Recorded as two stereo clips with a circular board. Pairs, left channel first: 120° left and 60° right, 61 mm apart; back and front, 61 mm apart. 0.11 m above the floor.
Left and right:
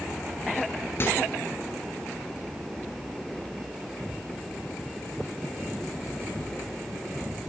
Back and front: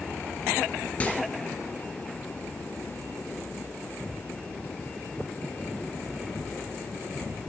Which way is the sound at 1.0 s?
125° left.